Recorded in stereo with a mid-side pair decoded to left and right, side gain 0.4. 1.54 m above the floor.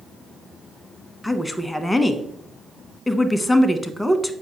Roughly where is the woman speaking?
Ahead.